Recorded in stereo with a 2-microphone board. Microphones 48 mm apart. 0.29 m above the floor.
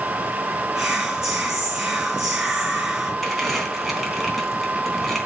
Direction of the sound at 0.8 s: 15° right (ahead or behind).